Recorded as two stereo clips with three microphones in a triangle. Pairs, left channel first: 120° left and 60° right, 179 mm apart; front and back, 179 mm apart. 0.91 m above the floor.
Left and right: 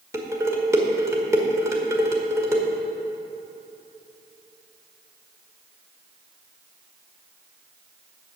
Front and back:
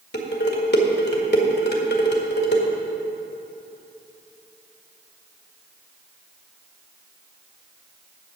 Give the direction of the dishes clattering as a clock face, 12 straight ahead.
12 o'clock.